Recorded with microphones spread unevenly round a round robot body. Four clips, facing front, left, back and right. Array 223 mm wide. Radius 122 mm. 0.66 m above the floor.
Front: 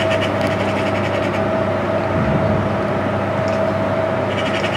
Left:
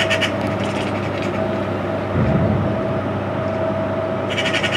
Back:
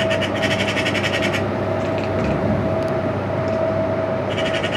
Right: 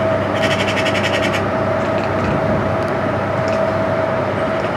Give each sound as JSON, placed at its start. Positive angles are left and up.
{"t": 2.1, "sound": "an explosion", "azimuth_deg": 70, "distance_m": 7.5}